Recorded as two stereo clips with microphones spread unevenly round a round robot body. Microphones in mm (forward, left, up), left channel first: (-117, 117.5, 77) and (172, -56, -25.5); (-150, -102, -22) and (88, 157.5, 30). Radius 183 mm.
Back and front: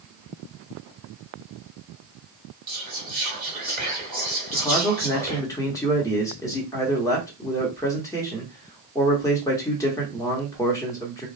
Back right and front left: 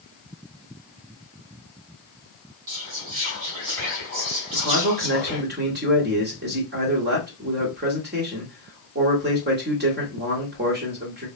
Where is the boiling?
I don't hear boiling.